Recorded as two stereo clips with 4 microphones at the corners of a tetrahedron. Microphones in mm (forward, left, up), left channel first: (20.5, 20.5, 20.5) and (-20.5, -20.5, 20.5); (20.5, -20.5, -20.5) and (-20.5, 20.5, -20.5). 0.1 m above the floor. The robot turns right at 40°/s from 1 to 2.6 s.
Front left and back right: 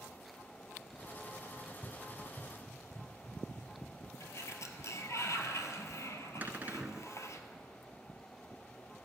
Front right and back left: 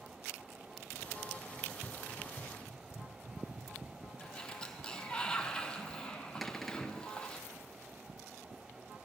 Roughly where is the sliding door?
Ahead left.